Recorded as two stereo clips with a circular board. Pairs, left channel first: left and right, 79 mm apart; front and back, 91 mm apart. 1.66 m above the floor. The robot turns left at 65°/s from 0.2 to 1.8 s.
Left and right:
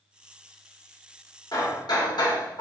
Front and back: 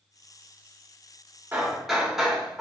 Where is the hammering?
110° left, 2.5 m; by 2.6 s 95° left, 2.5 m.